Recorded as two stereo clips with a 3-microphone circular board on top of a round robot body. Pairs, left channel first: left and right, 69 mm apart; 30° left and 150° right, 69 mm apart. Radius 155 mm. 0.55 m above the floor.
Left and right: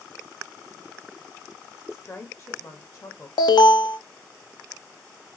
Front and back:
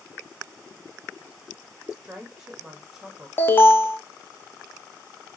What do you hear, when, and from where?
1.9 s a woman speaking: 130° left, 1.3 m
3.4 s an alarm: 90° left, 0.7 m